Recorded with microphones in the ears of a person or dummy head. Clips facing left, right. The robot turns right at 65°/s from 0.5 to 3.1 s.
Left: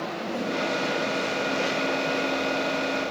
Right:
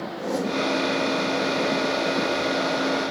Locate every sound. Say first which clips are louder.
0.2 s a whoosh: right 5 dB; 75° right (ahead or behind), 3 m; by 0.6 s 80° right, 3 m